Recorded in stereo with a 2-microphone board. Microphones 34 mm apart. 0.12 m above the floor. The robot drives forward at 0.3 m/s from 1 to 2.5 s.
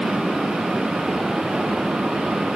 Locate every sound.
Only background noise.